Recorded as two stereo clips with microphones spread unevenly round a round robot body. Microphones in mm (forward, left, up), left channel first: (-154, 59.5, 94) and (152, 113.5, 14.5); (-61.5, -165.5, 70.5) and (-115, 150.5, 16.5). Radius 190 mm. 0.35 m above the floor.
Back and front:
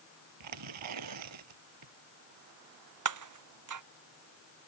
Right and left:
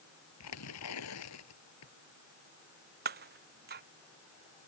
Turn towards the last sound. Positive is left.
turn(degrees=35)